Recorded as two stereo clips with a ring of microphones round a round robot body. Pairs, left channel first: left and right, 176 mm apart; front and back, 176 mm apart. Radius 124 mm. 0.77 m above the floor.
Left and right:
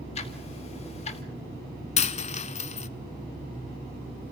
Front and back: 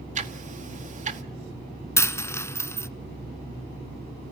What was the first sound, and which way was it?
Ticking, 145° left.